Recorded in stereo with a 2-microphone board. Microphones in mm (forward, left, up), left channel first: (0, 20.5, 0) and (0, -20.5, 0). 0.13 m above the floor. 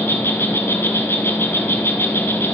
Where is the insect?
70° left (ahead or behind), 1.2 m.